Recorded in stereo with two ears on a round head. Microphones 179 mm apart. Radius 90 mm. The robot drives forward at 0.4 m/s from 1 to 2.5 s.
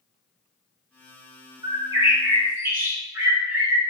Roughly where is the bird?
Centre.